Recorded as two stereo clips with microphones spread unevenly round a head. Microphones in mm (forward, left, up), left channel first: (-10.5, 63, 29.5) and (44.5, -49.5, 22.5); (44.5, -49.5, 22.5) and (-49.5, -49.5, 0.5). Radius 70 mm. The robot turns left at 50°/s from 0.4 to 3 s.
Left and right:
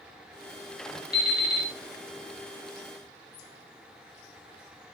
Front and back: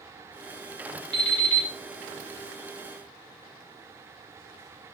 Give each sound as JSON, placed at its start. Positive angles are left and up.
{"t": 1.1, "sound": "an alarm clock", "azimuth_deg": 140, "distance_m": 1.0}